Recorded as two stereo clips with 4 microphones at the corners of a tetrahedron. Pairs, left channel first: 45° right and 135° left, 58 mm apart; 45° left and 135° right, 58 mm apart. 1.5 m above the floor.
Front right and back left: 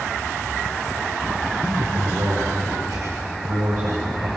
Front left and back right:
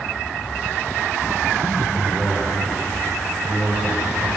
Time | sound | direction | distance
1.6 | a man speaking | 135° left | 8 m